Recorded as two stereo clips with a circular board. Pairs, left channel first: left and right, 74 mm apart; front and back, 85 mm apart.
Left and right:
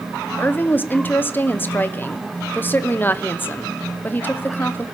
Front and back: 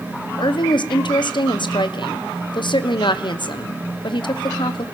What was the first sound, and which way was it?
A woman speaking, 25° left.